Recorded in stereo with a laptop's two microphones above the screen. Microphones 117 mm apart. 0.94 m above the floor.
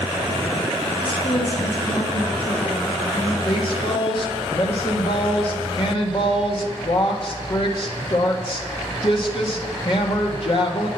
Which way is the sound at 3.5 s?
45° left (ahead or behind).